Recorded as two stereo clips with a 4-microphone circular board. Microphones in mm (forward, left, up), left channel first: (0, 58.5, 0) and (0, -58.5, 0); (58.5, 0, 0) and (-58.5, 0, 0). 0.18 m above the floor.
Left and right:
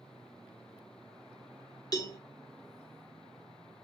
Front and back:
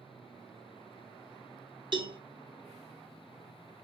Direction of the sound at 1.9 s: 140° left.